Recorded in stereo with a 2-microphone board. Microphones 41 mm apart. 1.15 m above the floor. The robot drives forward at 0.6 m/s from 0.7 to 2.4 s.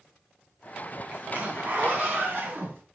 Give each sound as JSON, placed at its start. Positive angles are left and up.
{"t": 1.1, "sound": "a zipper", "side_deg": -40, "distance_m": 2.5}